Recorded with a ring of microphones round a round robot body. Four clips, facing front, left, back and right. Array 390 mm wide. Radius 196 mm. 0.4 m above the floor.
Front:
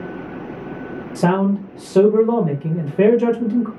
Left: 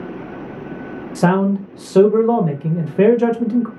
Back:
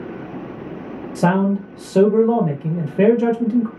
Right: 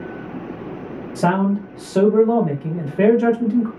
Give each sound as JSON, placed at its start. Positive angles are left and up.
{"t": 1.1, "sound": "a man speaking", "azimuth_deg": 90, "distance_m": 0.8}